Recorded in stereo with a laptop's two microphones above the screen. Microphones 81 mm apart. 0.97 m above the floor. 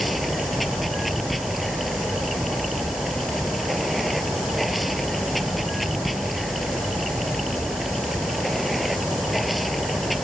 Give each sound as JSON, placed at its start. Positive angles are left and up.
{"t": 0.0, "sound": "running water", "side_deg": 0}